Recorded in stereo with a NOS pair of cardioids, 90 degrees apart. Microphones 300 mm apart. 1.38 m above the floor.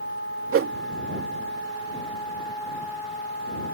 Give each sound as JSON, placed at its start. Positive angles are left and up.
{"t": 0.5, "sound": "a whoosh", "azimuth_deg": -45}